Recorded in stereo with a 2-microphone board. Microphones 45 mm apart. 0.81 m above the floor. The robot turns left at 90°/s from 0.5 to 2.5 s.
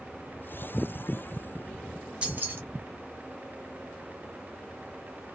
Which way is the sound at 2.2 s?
25° right (ahead or behind).